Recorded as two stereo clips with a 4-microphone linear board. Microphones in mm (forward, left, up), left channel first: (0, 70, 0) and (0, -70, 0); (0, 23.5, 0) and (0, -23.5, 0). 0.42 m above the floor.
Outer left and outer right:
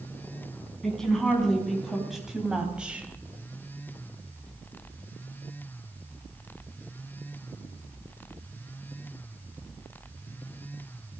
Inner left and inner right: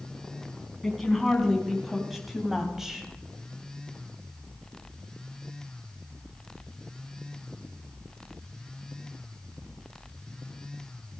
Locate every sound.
0.8 s a woman speaking: 5° left (ahead or behind), 4.5 m; by 3.1 s 10° right (ahead or behind), 2.5 m